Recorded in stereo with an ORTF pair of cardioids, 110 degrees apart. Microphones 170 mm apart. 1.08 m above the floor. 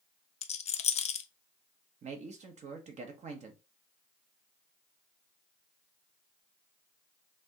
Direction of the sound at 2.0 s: 45° right.